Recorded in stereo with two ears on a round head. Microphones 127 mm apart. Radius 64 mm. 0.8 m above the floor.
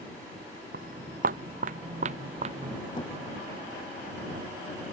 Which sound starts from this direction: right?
Footsteps, at 0.7 s.